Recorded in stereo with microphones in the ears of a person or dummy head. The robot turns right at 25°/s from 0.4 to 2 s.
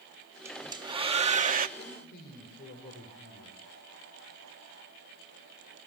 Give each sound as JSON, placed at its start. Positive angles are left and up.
{"t": 0.5, "sound": "a hair dryer", "azimuth_deg": -170, "distance_m": 1.1}
{"t": 1.8, "sound": "a man speaking", "side_deg": 45, "distance_m": 5.5}